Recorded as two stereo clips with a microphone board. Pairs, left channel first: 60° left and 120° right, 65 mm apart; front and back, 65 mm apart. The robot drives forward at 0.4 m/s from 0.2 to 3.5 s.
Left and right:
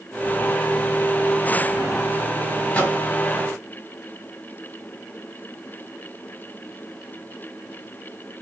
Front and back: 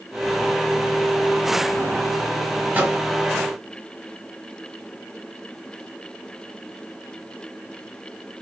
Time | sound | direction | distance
2.7 | a microwave | 125° left | 1.3 m